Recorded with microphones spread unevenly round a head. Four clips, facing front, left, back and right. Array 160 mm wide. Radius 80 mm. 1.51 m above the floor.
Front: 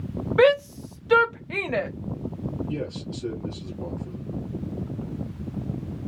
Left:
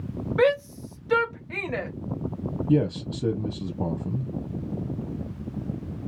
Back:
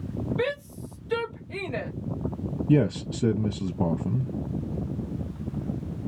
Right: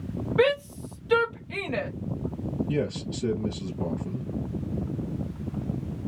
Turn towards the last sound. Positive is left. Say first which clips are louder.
# left 9 dB, back 8 dB
turn(degrees=155)